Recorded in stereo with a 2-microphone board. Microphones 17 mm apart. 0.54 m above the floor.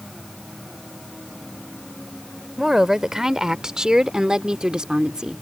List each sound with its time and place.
2.6 s a woman speaking: 30° right (ahead or behind); by 5.4 s 50° right (ahead or behind)